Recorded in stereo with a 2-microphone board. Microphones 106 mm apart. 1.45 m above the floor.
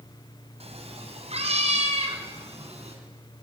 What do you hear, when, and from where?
0.6 s a cat meowing: 70° right (ahead or behind), 3.5 m; by 3.0 s 75° right (ahead or behind), 5.5 m